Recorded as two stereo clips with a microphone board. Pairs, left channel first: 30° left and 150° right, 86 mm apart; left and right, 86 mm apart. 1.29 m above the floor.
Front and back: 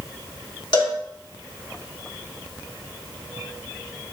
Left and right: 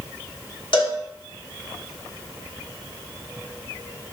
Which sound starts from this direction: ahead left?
A cowbell, at 0.7 s.